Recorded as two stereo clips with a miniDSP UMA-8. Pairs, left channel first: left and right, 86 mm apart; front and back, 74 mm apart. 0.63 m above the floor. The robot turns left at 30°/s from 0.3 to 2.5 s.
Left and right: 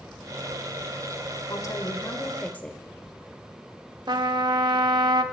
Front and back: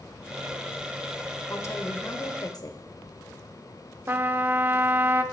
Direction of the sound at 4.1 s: 120° right.